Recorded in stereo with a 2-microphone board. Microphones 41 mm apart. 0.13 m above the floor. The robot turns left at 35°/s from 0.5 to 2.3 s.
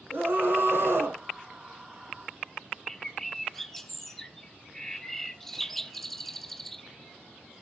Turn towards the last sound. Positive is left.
turn(degrees=10)  # may be behind; listen again after turning